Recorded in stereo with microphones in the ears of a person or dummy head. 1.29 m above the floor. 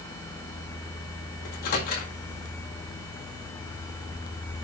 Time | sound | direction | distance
1.4 | a microwave | 45° left (ahead or behind) | 1.9 m